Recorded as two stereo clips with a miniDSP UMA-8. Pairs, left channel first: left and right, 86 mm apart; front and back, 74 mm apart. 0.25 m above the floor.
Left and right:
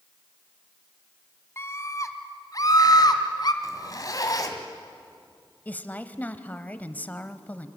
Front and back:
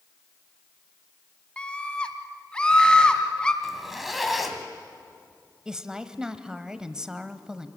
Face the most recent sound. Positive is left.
turn(degrees=120)